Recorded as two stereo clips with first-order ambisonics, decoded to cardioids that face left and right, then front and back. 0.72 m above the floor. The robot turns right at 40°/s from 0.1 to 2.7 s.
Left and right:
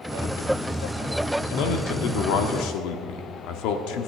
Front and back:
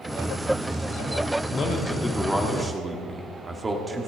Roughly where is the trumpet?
I don't hear a trumpet.